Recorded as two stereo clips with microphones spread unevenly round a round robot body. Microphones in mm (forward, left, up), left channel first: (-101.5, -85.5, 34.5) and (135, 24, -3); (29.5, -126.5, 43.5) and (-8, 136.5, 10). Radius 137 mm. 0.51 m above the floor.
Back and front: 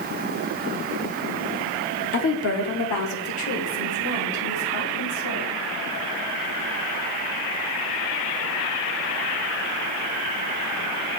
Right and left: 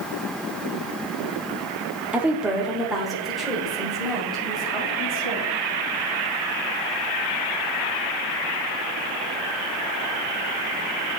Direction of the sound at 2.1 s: 170° left.